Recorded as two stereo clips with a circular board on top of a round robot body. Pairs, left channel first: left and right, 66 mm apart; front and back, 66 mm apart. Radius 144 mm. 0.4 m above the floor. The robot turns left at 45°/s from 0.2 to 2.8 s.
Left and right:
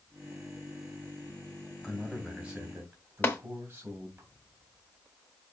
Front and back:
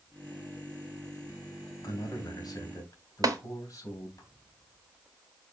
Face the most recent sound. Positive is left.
turn(degrees=155)